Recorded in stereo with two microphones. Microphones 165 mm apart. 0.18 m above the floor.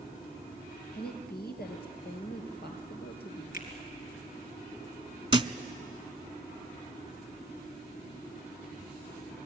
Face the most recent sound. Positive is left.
turn(degrees=-30)  # may be behind; listen again after turning